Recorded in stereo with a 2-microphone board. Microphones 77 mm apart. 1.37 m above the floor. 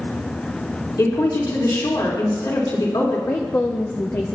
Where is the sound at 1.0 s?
65° left (ahead or behind), 4 m.